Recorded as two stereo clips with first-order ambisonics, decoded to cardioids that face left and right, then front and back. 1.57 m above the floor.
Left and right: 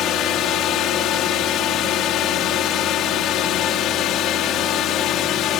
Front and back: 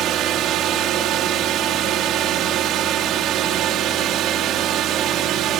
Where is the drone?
135° left.